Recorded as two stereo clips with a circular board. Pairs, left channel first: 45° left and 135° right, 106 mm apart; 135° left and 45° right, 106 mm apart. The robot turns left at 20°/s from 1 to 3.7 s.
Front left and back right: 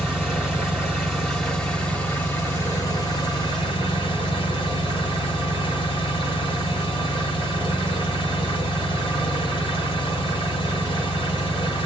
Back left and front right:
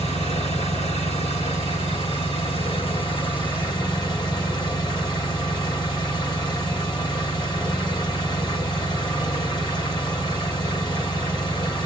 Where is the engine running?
140° left, 1.7 m; by 11.9 s 85° left, 1.7 m.